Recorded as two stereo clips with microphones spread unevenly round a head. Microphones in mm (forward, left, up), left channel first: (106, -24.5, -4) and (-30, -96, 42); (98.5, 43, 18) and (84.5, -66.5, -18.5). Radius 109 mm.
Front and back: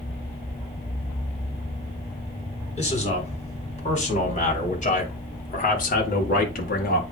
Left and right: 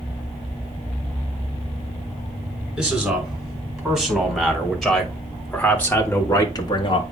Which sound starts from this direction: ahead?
A man speaking, at 2.8 s.